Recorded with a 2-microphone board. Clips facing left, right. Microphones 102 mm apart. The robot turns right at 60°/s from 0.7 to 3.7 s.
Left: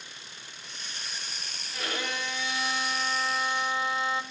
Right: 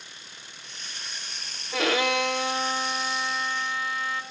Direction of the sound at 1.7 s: 95° right.